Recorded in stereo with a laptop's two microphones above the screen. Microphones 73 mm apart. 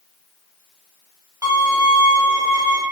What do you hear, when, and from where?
1.4 s a violin: 40° right (ahead or behind), 1.1 m